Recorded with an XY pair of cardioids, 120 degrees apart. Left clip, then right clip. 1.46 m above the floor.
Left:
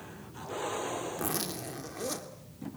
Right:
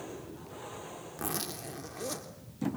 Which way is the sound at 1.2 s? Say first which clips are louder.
Left 2 dB; 5° left.